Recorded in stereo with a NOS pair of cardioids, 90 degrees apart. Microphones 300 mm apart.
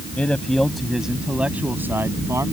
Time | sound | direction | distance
0.2 | a man speaking | 5° left | ?